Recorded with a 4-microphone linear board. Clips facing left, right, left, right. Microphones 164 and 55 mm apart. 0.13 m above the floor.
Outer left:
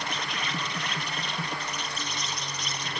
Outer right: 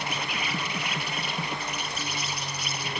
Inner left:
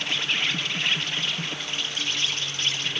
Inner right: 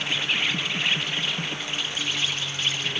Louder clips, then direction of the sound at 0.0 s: Outer right 1 dB, inner right 1 dB; 10° right (ahead or behind).